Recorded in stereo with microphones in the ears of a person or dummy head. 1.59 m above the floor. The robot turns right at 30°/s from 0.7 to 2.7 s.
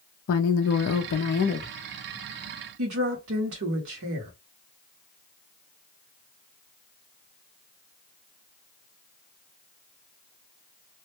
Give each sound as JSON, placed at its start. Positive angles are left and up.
{"t": 0.3, "sound": "a woman speaking", "azimuth_deg": 110, "distance_m": 0.5}
{"t": 2.8, "sound": "a woman speaking", "side_deg": -75, "distance_m": 1.6}